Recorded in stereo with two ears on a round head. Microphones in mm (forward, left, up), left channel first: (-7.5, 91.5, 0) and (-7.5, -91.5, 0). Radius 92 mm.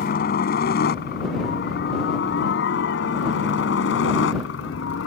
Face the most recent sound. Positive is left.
turn(degrees=65)  # may be behind; listen again after turning